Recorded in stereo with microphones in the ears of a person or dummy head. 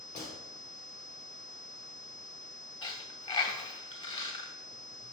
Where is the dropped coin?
30° left (ahead or behind), 2 m.